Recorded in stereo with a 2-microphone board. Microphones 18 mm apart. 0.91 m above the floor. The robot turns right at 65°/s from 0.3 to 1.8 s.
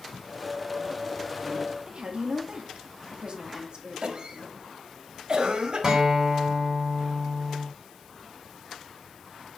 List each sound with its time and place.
1.9 s a woman speaking: 50° right (ahead or behind), 1.6 m
4.0 s a cough: 45° right (ahead or behind), 1.5 m
5.8 s a guitar: 35° right (ahead or behind), 3.5 m